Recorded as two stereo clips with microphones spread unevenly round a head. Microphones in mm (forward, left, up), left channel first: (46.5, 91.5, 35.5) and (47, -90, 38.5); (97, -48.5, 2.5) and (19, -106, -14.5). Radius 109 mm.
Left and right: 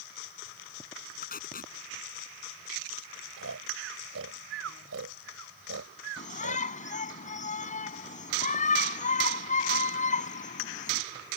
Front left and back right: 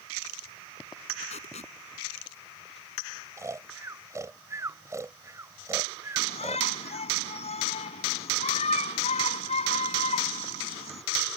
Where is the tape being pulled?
50° left.